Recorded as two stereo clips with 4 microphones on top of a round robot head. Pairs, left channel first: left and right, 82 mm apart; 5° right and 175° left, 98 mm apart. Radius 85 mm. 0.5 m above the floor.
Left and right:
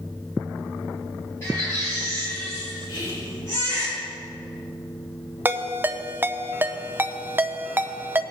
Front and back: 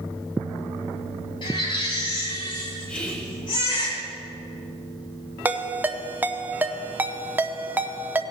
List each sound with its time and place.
1.4 s a baby crying: 30° left, 4 m
2.9 s whispering: 70° left, 2.5 m
5.5 s a ringtone: 130° right, 0.8 m